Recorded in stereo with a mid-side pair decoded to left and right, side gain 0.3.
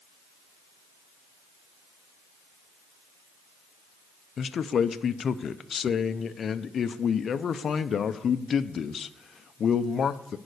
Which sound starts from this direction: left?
A man speaking, at 4.4 s.